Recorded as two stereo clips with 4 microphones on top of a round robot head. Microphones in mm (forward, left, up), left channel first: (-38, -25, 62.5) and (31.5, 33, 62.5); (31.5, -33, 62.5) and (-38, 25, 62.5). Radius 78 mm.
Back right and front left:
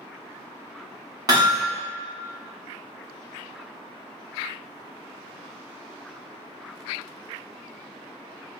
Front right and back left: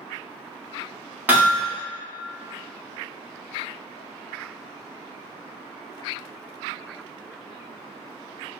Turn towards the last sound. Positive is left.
turn(degrees=70)